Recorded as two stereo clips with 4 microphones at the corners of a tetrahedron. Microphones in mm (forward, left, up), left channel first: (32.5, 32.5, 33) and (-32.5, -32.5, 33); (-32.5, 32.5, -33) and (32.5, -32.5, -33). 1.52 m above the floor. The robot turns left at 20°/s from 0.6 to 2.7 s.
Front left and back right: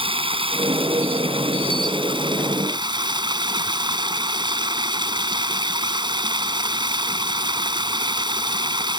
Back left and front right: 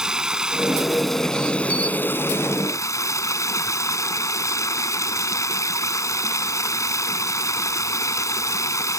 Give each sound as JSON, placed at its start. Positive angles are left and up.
{"t": 0.0, "sound": "running water", "azimuth_deg": -125}